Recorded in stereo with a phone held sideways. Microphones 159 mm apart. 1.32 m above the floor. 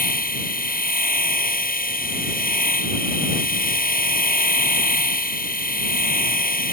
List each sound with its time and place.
0.0 s a machine running: 65° left (ahead or behind)